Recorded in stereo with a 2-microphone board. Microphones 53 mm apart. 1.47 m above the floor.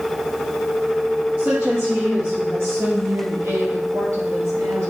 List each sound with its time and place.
1.4 s a woman speaking: 25° right (ahead or behind), 2 m; by 4.9 s 85° right, 3 m